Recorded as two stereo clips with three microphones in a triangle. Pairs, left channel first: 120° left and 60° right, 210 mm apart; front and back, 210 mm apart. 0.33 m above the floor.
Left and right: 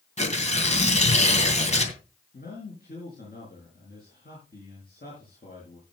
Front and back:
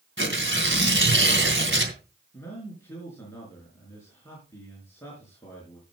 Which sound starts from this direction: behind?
Tearing paper, at 0.2 s.